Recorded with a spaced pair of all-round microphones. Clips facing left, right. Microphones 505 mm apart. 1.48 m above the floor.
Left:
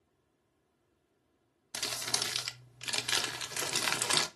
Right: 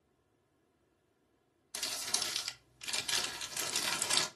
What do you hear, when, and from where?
1.7 s crumpling: 75° left (ahead or behind), 0.6 m